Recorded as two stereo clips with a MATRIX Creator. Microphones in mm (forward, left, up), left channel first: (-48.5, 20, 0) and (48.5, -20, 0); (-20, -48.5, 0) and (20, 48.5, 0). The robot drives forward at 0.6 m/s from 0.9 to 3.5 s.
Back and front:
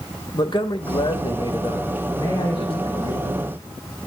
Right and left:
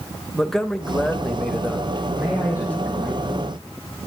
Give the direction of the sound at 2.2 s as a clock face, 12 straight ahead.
8 o'clock.